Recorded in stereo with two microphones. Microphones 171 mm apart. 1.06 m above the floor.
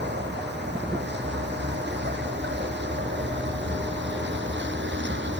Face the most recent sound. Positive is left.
turn(degrees=-85)